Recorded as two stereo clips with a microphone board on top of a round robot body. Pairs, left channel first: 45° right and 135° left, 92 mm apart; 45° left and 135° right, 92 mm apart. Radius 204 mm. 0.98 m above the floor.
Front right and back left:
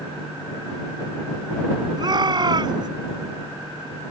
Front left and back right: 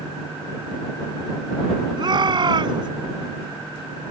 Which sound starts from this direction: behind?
A shout, at 2.0 s.